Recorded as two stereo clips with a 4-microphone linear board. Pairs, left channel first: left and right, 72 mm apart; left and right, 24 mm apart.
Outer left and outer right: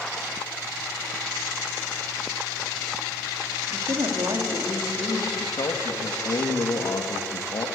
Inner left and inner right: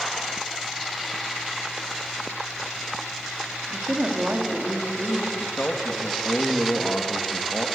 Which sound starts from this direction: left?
A man speaking, at 5.4 s.